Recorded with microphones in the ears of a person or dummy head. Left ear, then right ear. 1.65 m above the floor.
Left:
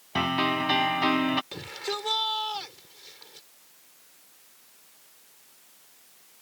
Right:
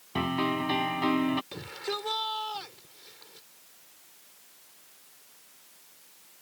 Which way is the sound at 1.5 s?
15° left (ahead or behind).